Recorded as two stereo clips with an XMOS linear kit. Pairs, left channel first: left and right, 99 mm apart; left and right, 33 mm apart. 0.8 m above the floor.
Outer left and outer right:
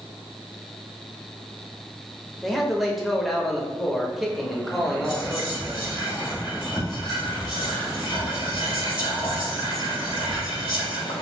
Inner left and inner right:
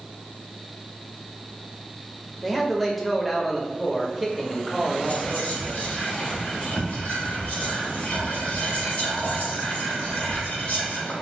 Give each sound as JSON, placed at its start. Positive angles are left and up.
{"t": 2.4, "sound": "a man speaking", "side_deg": 0, "distance_m": 0.7}
{"t": 5.0, "sound": "whispering", "side_deg": 45, "distance_m": 1.7}